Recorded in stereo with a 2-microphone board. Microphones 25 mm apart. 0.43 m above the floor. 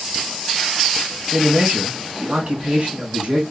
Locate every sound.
1.3 s a man speaking: 45° right (ahead or behind), 4 m